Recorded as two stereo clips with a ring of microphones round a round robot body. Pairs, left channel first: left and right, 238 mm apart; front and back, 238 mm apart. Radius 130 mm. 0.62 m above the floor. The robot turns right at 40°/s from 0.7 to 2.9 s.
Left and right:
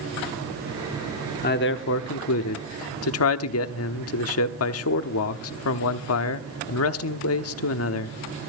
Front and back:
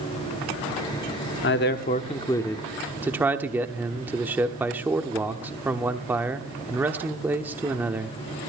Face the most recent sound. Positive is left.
turn(degrees=100)